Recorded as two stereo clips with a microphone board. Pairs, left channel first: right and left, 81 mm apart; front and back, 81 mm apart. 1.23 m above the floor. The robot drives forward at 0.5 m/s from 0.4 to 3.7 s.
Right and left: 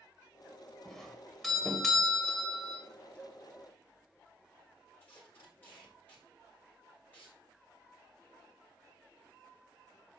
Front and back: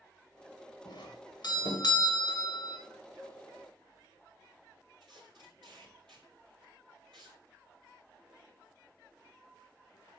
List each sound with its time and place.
0.8 s a doorbell: straight ahead, 2 m
3.1 s a cowbell: 160° right, 6 m
5.0 s tape being pulled: 155° right, 5.5 m